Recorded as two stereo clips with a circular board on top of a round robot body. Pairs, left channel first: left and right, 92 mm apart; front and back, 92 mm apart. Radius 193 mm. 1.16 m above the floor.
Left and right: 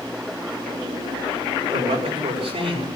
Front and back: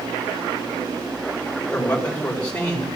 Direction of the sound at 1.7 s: 75° right.